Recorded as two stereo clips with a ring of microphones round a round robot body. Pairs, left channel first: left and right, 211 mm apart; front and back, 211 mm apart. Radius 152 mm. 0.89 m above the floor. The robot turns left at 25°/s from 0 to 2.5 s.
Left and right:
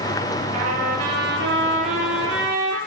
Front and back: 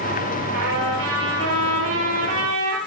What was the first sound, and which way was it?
A trumpet, 120° right.